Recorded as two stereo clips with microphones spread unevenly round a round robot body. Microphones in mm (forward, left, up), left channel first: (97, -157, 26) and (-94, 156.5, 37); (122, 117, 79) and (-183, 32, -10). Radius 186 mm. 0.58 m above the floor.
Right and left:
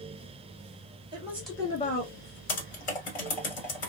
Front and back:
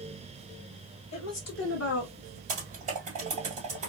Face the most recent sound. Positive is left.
turn(degrees=-85)